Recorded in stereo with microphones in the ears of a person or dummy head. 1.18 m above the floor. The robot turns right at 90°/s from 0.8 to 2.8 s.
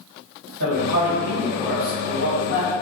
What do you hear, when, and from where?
0.6 s a man speaking: 70° right, 1.7 m; by 2.7 s 100° left, 1.7 m